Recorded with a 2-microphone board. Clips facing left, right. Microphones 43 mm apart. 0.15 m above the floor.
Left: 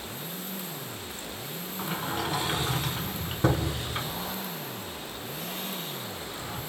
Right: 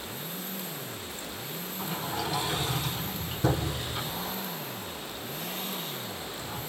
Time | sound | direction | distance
1.8 | a sliding door | 40° left (ahead or behind) | 1.0 m